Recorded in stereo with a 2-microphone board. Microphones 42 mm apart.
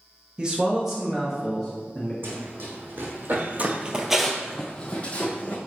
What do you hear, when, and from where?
0.4 s a man speaking: 25° right (ahead or behind), 0.9 m; by 2.1 s 5° left (ahead or behind), 1.4 m
2.2 s running footsteps: 55° right (ahead or behind), 2.5 m; by 5.6 s 40° left (ahead or behind), 2.0 m